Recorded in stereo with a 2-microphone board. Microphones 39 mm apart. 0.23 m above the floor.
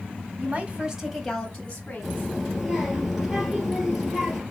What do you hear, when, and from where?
0.4 s a woman speaking: 40° right (ahead or behind), 1.3 m; by 2.3 s 35° left (ahead or behind), 1.9 m
2.0 s a child speaking: 5° right (ahead or behind), 2.5 m